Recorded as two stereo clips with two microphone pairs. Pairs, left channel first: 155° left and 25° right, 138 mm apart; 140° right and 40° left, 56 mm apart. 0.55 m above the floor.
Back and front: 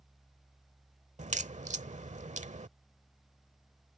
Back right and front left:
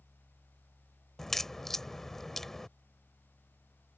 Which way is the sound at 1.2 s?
55° right.